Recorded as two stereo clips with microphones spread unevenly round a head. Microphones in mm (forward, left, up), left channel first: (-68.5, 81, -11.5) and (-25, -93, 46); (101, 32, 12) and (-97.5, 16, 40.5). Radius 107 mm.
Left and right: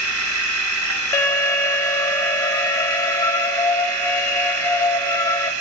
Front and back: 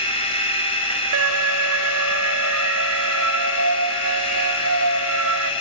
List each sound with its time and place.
0.0 s a machine running: 60° right, 6.5 m
1.1 s an alarm: straight behind, 5 m